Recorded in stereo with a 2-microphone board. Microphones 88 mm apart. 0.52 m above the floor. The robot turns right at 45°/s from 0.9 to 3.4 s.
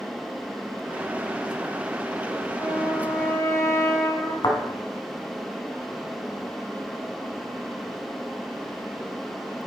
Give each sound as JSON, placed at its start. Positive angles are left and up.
{"t": 2.5, "sound": "a trumpet", "azimuth_deg": -5, "distance_m": 3.5}
{"t": 4.4, "sound": "a thud", "side_deg": 55, "distance_m": 2.0}